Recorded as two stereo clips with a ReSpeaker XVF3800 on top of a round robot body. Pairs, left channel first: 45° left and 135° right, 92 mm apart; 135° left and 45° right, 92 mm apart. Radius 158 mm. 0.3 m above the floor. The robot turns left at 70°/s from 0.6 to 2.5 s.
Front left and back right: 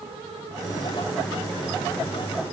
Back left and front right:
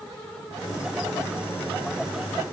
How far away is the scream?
No scream in this recording.